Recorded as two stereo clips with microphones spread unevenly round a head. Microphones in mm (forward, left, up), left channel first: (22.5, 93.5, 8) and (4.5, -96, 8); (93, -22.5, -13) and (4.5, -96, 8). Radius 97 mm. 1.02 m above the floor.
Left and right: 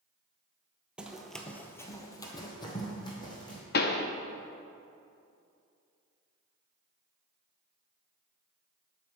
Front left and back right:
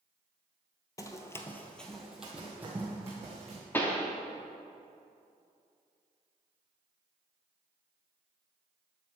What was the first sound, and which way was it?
Running footsteps, 15° right.